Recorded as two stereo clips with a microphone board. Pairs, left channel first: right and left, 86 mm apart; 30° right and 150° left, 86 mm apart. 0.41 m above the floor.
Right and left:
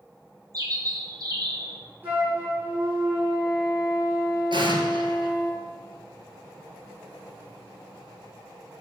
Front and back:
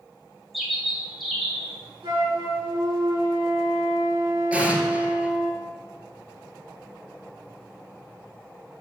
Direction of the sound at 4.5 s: 75° left.